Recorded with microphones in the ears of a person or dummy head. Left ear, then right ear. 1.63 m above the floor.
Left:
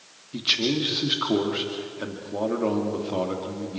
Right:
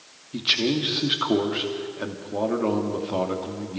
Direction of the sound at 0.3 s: Centre (ahead or behind).